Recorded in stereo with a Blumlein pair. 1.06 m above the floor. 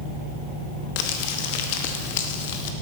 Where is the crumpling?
50° left, 1.1 m.